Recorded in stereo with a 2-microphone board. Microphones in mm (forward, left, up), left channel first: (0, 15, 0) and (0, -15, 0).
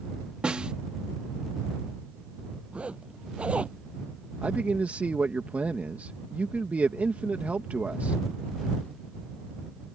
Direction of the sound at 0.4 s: 35° right (ahead or behind).